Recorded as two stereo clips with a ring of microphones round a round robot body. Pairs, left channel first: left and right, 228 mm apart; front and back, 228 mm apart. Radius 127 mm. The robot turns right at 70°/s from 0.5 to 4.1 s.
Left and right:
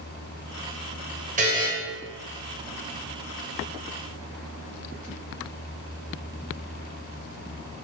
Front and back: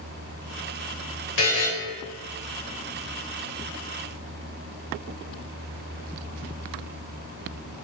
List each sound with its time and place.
1.4 s a buzzer: 35° right, 1.1 m; by 1.7 s 10° right, 1.1 m